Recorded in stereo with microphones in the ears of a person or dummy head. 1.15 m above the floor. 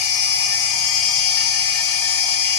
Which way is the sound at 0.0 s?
65° left (ahead or behind).